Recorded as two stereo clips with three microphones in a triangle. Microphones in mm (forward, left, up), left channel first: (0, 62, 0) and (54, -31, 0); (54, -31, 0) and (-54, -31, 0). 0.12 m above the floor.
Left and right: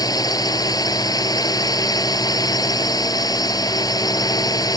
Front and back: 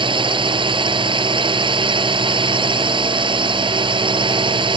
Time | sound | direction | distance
0.0 | a drone | 160° left | ?